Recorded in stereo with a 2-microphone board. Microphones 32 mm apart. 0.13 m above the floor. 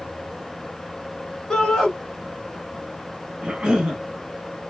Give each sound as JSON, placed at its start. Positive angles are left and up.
{"t": 1.5, "sound": "a shout", "side_deg": 15, "distance_m": 1.3}
{"t": 3.4, "sound": "a cough", "side_deg": -25, "distance_m": 1.5}